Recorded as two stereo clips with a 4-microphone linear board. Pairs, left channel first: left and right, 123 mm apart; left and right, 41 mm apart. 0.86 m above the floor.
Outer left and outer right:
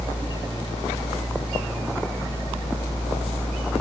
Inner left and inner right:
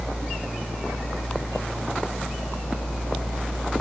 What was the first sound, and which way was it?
Only background noise.